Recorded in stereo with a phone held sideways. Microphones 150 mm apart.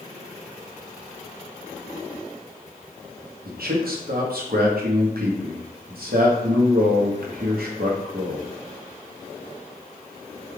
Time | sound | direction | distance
3.5 | a man speaking | 85° right | 0.9 m